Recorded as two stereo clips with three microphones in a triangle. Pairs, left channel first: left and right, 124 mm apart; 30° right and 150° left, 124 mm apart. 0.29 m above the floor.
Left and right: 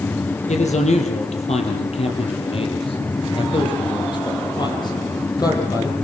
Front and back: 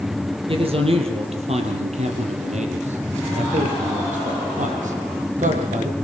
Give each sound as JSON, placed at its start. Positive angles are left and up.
{"t": 0.5, "sound": "a man speaking", "azimuth_deg": 110, "distance_m": 6.0}